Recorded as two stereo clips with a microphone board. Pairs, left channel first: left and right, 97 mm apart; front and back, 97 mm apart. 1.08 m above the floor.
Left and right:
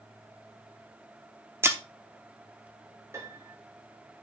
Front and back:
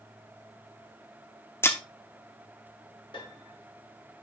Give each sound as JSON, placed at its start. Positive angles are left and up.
{"t": 1.6, "sound": "breaking glass", "azimuth_deg": -45, "distance_m": 0.7}
{"t": 3.1, "sound": "a piano", "azimuth_deg": -30, "distance_m": 1.6}